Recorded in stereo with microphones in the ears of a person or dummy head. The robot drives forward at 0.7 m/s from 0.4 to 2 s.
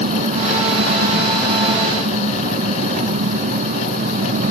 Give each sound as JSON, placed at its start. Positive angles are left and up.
{"t": 0.0, "sound": "an engine running", "side_deg": -40}